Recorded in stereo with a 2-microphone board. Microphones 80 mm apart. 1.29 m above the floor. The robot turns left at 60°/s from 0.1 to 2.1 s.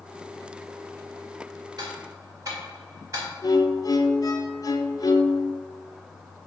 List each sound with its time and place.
1.8 s ticking: 60° right (ahead or behind), 2 m; by 3.3 s 45° right (ahead or behind), 2 m
3.4 s a violin: 50° left (ahead or behind), 0.7 m